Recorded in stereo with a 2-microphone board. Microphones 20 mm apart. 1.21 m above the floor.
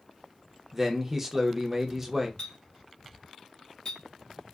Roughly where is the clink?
Left.